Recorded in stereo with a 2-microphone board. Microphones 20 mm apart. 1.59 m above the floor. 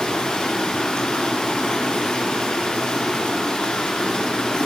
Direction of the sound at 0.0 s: 55° left (ahead or behind).